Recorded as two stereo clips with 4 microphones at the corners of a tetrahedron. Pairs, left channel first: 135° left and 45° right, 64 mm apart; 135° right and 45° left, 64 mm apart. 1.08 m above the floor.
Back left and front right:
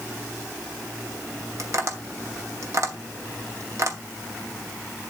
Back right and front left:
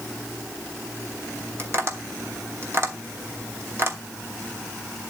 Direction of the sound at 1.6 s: 5° right.